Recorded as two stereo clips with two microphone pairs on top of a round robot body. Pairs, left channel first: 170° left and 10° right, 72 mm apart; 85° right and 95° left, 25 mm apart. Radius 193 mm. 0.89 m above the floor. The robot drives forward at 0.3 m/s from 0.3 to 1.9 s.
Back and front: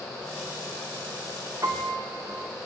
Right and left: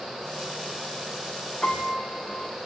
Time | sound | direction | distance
1.6 | a piano | 50° right | 1.3 m